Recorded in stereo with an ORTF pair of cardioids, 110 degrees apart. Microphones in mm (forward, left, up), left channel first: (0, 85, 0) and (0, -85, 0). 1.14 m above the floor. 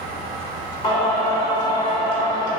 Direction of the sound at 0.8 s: 25° left.